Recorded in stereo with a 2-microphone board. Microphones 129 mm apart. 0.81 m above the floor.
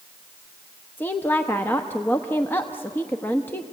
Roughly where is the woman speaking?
Centre.